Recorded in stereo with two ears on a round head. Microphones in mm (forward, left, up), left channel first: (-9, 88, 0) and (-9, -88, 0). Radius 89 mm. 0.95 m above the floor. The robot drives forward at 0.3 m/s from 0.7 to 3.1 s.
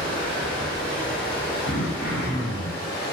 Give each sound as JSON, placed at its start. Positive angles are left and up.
{"t": 0.0, "sound": "running water", "side_deg": 10, "distance_m": 1.2}
{"t": 1.6, "sound": "throat clearing", "side_deg": 55, "distance_m": 0.8}